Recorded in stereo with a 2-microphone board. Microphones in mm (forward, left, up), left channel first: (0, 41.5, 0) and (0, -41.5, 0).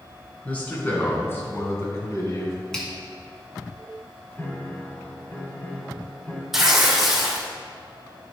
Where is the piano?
20° left (ahead or behind), 1.6 m.